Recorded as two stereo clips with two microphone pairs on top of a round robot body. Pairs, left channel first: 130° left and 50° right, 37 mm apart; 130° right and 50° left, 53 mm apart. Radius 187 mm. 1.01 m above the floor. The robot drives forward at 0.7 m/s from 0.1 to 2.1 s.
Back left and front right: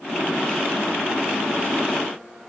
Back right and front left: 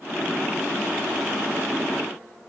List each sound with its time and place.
Only background noise.